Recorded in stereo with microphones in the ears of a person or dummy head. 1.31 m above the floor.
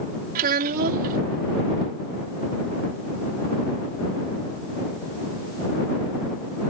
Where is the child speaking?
50° right (ahead or behind).